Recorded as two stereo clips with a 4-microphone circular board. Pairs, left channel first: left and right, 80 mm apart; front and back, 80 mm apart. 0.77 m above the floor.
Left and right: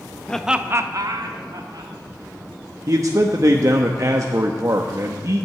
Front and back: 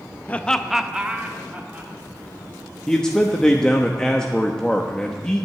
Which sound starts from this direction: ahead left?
Laughter, at 0.3 s.